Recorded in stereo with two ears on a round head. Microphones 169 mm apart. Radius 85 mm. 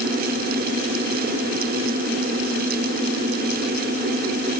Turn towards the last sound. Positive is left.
No sound to turn to.